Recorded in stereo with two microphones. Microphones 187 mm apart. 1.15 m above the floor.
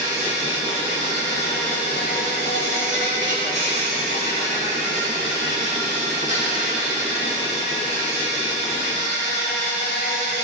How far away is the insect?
About 2.5 m.